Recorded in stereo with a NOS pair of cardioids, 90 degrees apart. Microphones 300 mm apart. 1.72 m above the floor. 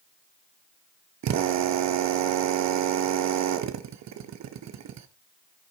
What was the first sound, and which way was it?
A drill, 60° right.